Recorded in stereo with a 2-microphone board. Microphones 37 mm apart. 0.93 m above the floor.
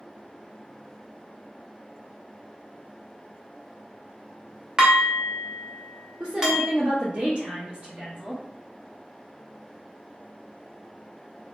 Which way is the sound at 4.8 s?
20° right (ahead or behind).